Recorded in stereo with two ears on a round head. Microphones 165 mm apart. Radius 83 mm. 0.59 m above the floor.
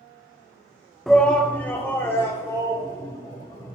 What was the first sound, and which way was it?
A shout, centre (ahead or behind).